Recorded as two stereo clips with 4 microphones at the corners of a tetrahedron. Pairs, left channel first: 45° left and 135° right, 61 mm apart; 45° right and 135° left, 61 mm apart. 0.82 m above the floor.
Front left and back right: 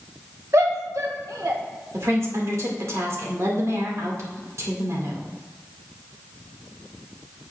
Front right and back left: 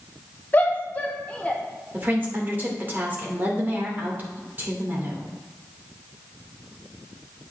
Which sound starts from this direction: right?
A shout, at 0.5 s.